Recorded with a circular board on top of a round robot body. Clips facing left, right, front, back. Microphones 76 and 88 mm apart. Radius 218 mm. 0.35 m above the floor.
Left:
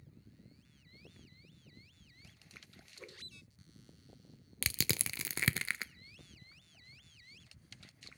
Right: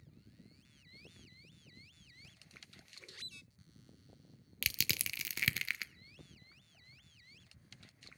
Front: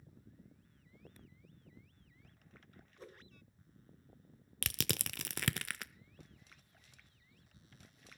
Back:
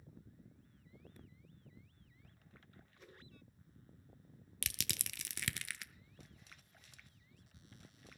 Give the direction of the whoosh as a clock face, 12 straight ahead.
10 o'clock.